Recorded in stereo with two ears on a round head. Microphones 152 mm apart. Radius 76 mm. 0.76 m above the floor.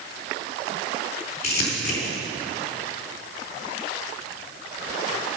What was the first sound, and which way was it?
Crumpling, 70° left (ahead or behind).